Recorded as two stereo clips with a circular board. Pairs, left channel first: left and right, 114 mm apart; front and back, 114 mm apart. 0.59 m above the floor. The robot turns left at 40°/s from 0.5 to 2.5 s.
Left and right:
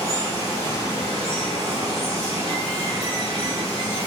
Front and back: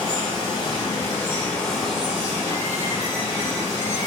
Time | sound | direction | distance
0.0 | running water | 40° right | 1.5 m